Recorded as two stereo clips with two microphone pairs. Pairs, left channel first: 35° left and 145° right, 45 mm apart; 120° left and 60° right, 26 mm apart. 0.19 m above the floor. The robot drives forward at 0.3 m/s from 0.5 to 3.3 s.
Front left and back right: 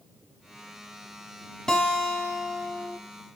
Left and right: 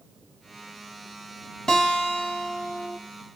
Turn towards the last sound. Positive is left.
turn(degrees=150)